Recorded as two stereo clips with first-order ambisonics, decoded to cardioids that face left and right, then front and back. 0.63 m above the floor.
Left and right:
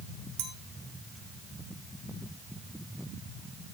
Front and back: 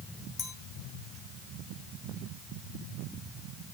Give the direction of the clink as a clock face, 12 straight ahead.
2 o'clock.